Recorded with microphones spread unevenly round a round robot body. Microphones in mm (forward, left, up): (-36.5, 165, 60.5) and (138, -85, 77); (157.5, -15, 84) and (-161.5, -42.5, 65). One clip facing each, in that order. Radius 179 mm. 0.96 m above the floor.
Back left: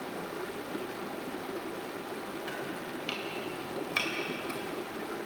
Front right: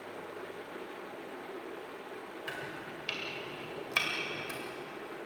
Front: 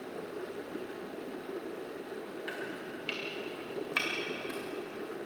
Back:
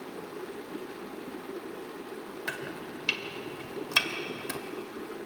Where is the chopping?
145° right, 2 m.